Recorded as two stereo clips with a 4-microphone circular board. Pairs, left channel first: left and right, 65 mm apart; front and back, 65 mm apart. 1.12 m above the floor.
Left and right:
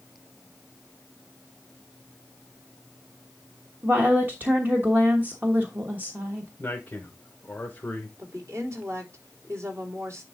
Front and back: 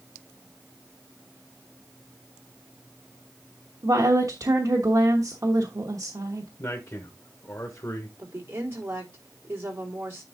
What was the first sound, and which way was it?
A woman speaking, 150° right.